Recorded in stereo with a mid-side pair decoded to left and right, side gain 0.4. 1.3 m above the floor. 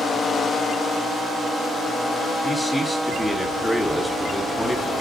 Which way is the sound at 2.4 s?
15° left.